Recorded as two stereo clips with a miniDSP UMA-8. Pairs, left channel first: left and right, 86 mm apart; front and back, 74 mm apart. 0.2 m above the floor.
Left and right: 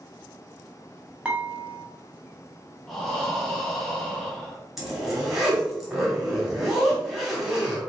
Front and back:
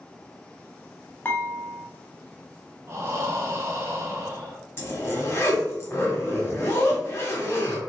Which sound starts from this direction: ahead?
A zipper, at 4.8 s.